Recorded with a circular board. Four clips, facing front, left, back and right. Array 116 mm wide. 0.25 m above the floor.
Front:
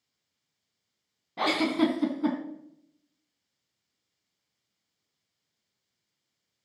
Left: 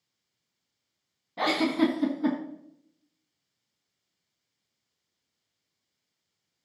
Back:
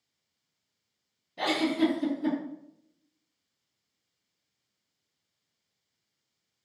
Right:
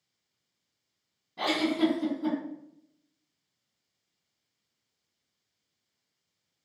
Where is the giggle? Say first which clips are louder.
Left 2 dB, front 1 dB; 25° left, 2.0 m.